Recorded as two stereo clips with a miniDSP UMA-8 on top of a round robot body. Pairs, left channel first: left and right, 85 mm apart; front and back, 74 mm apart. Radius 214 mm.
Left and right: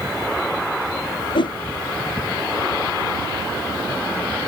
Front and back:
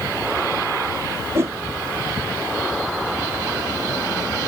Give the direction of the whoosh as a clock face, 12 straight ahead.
8 o'clock.